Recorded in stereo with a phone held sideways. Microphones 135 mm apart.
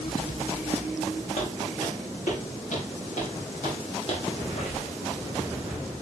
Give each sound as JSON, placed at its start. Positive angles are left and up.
{"t": 1.4, "sound": "footsteps", "side_deg": 80, "distance_m": 6.0}
{"t": 4.4, "sound": "a squeak", "side_deg": 55, "distance_m": 6.5}